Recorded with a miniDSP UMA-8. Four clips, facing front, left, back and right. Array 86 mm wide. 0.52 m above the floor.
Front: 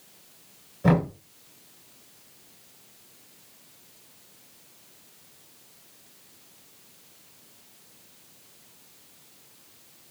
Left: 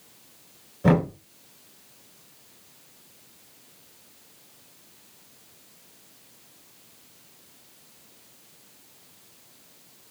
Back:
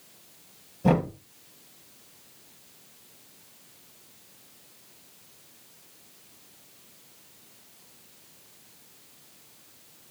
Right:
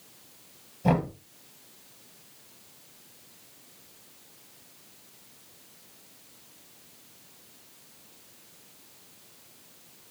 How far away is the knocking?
About 4 m.